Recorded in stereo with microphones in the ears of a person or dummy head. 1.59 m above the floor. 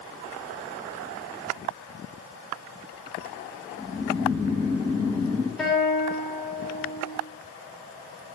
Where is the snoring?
10° left (ahead or behind), 1.7 m.